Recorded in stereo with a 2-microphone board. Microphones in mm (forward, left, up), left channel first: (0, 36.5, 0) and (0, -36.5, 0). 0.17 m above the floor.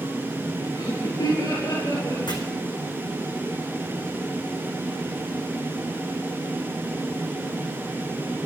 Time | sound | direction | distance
0.8 | laughter | 65° left (ahead or behind) | 3 m
2.3 | chopping | 85° left | 2 m